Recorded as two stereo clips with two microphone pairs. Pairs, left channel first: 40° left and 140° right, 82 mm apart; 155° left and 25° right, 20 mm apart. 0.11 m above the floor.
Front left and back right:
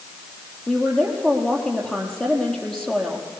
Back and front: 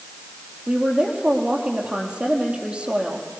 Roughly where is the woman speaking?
Ahead right.